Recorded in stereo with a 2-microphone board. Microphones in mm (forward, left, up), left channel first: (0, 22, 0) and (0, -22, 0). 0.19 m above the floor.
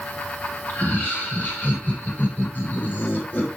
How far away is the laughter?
About 9 m.